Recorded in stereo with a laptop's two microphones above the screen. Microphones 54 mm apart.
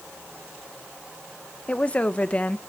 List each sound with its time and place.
1.7 s a woman speaking: 25° left (ahead or behind), 0.9 m